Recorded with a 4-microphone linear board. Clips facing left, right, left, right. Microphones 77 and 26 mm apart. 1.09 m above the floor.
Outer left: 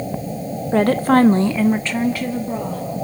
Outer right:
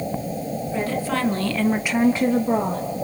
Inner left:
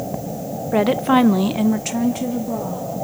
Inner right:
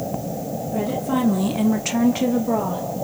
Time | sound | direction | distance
0.7 | a woman speaking | 65° left (ahead or behind) | 1.1 m